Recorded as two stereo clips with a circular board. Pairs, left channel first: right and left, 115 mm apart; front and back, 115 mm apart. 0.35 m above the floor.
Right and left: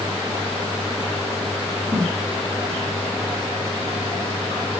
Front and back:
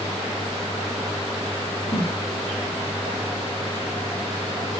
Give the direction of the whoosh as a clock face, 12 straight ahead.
12 o'clock.